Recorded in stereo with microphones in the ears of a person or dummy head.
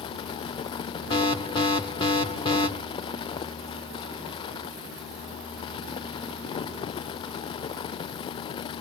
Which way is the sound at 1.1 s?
20° left (ahead or behind).